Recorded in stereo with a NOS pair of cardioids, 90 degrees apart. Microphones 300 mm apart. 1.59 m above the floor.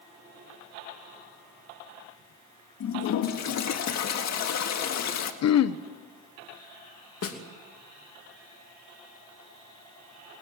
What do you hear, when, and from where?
2.8 s a toilet flushing: 65° left, 1.9 m
5.4 s throat clearing: 60° left, 1.0 m
7.2 s a snare drum: 50° left, 2.5 m